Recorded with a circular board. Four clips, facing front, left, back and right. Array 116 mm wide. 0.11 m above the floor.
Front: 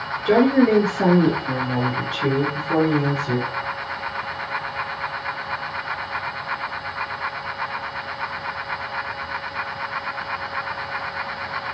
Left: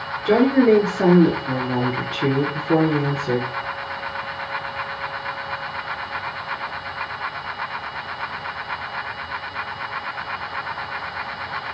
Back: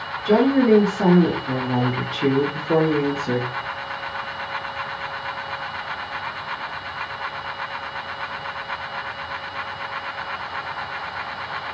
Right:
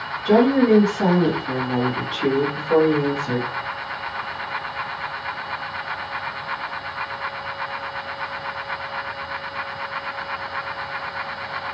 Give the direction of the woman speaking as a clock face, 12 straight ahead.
10 o'clock.